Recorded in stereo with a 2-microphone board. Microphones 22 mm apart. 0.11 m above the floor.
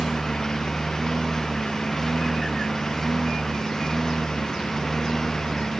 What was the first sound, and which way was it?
A lawn mower, 15° left (ahead or behind).